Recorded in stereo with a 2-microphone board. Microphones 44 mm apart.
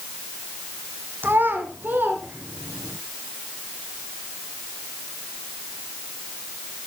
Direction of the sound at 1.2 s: 50° right (ahead or behind).